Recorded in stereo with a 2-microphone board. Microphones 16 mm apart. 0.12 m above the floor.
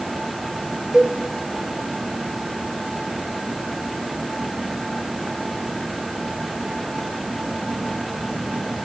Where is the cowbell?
55° right (ahead or behind), 3.5 m.